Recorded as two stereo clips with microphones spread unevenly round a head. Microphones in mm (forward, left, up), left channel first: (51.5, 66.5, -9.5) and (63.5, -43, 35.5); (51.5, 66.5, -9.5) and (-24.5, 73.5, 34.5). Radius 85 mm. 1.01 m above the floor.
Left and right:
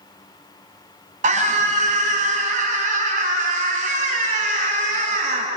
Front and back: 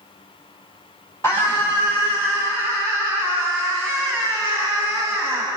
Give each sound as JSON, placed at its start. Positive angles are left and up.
{"t": 1.2, "sound": "a scream", "azimuth_deg": -80, "distance_m": 7.5}